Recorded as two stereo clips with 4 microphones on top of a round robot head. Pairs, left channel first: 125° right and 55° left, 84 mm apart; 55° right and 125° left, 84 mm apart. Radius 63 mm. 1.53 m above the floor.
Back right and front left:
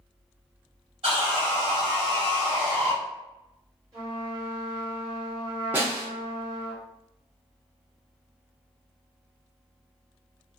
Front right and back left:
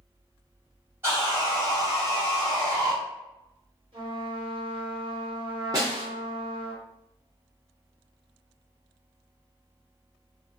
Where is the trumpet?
105° left, 1.5 m.